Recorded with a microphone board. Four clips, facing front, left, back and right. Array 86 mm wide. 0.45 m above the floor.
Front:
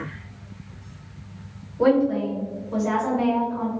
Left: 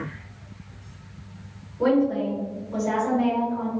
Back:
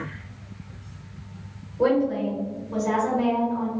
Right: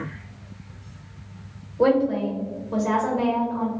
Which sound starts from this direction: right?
A woman speaking, at 1.8 s.